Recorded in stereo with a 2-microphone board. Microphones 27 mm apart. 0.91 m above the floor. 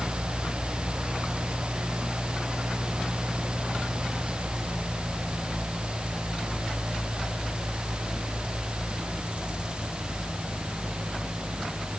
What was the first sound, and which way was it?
Only background noise.